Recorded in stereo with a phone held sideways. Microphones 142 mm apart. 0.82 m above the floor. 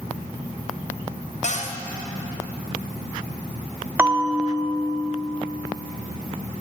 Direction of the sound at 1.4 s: 55° left (ahead or behind).